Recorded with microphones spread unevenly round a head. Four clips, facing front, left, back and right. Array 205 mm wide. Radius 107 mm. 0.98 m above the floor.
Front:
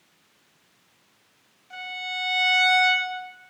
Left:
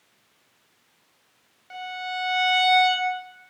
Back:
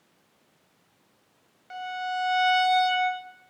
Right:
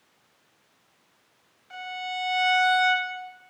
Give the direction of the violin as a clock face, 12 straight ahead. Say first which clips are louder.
Left 2 dB, back 5 dB; 7 o'clock.